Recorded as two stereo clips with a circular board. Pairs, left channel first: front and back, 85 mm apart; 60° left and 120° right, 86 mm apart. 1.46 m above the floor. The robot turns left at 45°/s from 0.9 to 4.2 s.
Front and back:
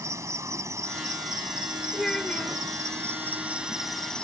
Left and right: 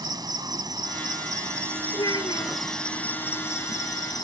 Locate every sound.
0.0 s an insect: 135° right; by 4.2 s 75° left
1.9 s a child speaking: 95° left; by 2.6 s 60° left